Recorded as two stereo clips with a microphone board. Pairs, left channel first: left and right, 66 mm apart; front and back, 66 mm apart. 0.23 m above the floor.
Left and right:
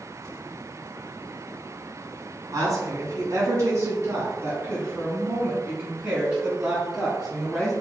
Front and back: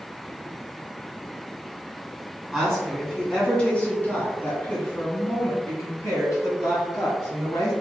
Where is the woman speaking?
90° right, 2.0 m; by 7.7 s 5° right, 2.5 m.